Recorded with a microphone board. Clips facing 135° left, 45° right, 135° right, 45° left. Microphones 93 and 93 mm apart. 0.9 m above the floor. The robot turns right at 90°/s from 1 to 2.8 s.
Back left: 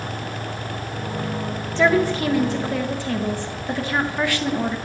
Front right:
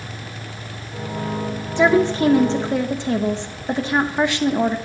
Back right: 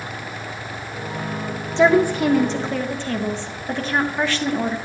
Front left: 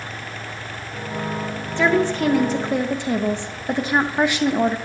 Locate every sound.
1.8 s a woman speaking: 100° right, 0.5 m; by 4.8 s 5° right, 0.5 m